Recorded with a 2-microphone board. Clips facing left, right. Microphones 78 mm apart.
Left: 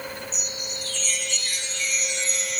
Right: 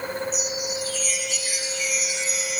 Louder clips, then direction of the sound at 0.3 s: Right 7 dB; 5° right (ahead or behind).